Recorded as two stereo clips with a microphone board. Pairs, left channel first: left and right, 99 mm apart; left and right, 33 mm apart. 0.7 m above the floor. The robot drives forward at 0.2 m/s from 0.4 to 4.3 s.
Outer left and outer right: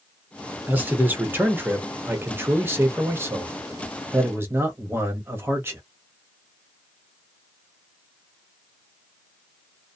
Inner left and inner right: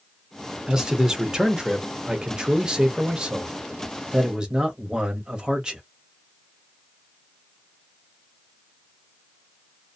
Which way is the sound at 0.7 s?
20° right (ahead or behind).